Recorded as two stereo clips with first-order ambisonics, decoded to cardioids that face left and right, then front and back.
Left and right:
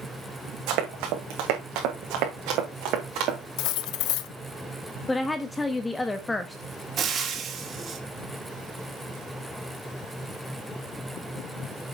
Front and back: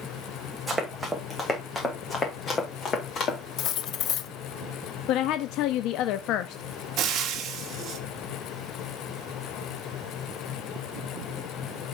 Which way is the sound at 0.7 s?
95° right.